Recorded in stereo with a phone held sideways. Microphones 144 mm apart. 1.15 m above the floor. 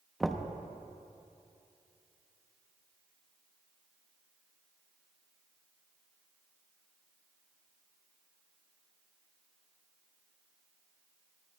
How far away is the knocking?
About 0.8 m.